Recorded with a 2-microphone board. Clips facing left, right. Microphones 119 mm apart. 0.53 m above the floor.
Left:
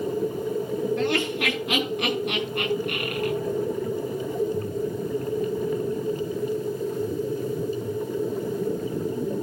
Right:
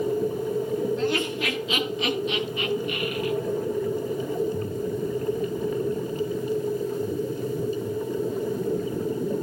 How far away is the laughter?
About 9.5 m.